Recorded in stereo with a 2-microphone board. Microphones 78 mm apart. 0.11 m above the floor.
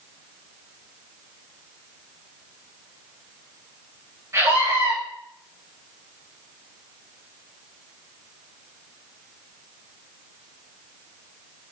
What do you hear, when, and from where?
4.3 s a scream: 40° right (ahead or behind), 8 m